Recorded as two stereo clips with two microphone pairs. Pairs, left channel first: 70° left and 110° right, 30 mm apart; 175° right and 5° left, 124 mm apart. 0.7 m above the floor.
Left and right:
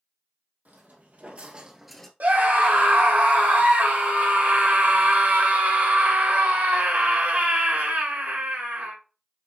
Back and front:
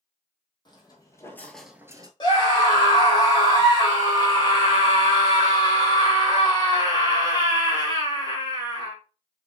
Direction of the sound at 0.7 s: 125° right.